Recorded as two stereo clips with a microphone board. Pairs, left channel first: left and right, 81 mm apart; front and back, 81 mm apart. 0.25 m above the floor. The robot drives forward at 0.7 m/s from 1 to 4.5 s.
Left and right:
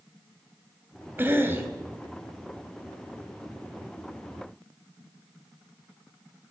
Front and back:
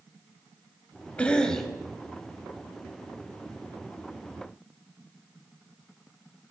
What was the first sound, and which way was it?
A cough, 60° right.